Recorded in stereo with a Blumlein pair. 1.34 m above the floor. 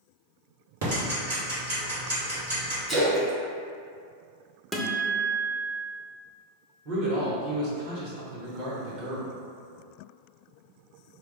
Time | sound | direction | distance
0.8 | ticking | 65° right | 1.3 m
2.9 | a splash | 15° right | 1.1 m
4.7 | a guitar | straight ahead | 0.5 m
6.8 | a man speaking | 45° right | 1.3 m